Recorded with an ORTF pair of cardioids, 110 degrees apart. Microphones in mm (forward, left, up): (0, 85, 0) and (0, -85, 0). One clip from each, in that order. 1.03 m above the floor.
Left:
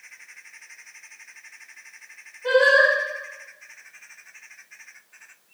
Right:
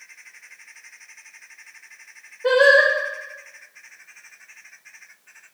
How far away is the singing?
About 4.5 m.